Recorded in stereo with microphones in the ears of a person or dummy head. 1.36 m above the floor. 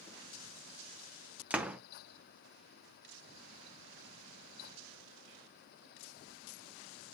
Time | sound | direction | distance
1.5 | a door slam | 5° right (ahead or behind) | 0.6 m